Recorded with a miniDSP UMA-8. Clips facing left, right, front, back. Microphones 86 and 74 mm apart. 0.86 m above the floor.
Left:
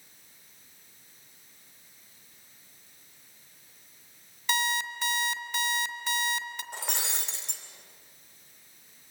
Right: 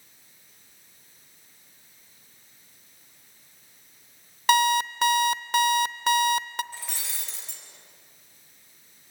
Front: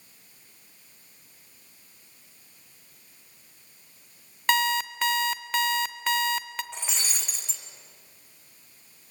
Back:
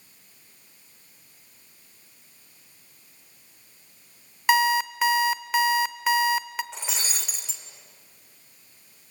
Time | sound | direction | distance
4.5 | an alarm clock | 95° right | 0.7 m
6.7 | breaking glass | 95° left | 2.5 m